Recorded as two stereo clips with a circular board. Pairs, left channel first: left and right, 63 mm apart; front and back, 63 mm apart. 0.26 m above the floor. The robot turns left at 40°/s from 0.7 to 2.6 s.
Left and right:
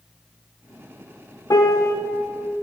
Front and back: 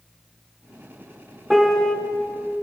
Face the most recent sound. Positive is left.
turn(degrees=50)